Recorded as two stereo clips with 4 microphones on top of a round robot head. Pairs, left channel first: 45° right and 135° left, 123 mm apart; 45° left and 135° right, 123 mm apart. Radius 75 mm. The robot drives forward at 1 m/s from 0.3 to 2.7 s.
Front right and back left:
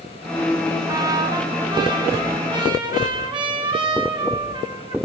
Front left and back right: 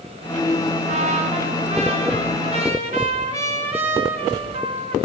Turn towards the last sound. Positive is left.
turn(degrees=-175)